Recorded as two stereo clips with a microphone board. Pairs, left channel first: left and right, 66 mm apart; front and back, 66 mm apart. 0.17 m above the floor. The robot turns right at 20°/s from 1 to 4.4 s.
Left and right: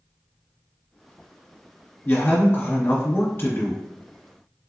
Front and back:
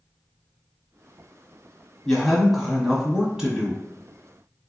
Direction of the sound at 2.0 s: 80° left.